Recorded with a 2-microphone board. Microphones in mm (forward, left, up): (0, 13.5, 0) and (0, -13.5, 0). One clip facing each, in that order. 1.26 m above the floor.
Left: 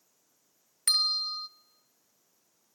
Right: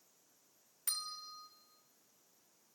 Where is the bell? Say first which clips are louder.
Left 17 dB; 70° left (ahead or behind), 0.8 m.